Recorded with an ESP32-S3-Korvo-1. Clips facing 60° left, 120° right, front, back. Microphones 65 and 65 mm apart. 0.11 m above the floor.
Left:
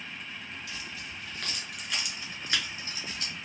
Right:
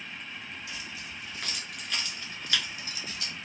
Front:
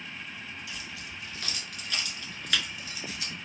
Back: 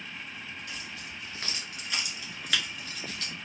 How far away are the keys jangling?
About 1.1 m.